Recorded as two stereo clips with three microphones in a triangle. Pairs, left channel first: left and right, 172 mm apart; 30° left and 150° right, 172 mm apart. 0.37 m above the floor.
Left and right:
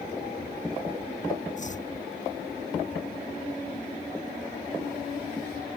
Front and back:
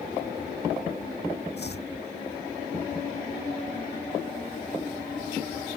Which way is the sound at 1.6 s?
45° left.